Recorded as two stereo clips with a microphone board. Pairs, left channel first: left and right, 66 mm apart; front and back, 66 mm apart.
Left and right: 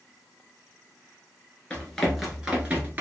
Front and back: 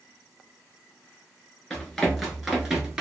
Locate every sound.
1.7 s running footsteps: 60° left, 0.9 m; by 3.0 s 110° right, 1.1 m